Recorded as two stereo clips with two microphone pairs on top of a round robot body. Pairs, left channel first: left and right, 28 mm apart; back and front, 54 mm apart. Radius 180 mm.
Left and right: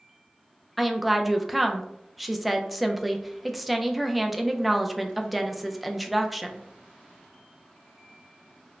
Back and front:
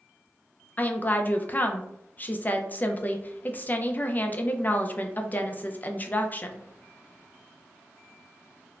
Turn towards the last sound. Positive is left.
turn(degrees=175)